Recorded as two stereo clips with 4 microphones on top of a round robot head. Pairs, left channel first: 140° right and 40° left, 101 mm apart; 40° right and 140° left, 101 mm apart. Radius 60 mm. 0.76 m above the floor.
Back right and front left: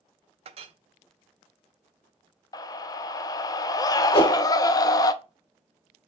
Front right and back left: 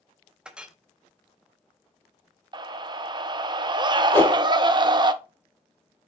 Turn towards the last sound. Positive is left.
turn(degrees=-110)